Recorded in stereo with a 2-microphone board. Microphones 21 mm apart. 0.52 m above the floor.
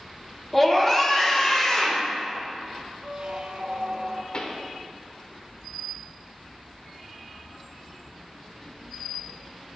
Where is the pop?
50° left (ahead or behind), 0.7 m.